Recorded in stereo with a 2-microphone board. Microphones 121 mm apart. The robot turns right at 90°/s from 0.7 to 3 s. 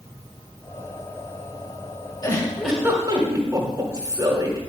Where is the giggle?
140° left, 1.6 m; by 4.6 s 150° right, 1.6 m.